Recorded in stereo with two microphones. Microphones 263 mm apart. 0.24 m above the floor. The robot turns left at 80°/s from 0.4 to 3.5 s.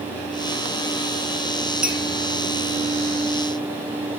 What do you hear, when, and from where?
1.8 s a clink: 5° right (ahead or behind), 2 m; by 2.0 s 15° right (ahead or behind), 2 m